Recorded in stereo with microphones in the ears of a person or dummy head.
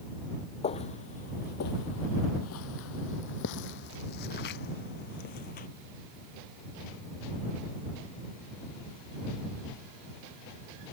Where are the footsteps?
30° left (ahead or behind); by 5.7 s 45° left (ahead or behind).